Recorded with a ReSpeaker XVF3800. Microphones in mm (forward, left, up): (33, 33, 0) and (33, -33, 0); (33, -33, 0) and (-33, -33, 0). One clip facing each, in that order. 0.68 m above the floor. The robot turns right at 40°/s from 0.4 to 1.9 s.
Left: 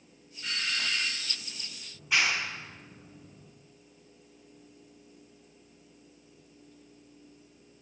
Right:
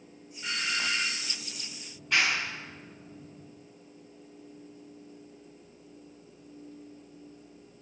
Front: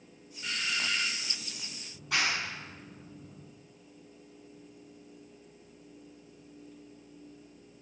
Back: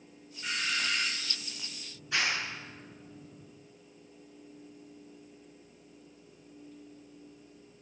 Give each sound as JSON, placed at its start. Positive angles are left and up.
{"t": 0.4, "sound": "a doorbell", "azimuth_deg": -125, "distance_m": 1.0}
{"t": 1.9, "sound": "a clap", "azimuth_deg": 5, "distance_m": 5.0}